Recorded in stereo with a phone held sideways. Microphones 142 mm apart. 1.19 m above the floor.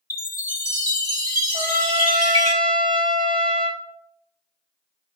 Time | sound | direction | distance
0.1 | a chime | 25° left (ahead or behind) | 2.5 m
1.5 | a trumpet | 35° right (ahead or behind) | 2.0 m